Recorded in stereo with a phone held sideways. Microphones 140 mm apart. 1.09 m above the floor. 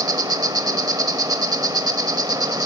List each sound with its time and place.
0.0 s an insect: 25° right (ahead or behind), 0.9 m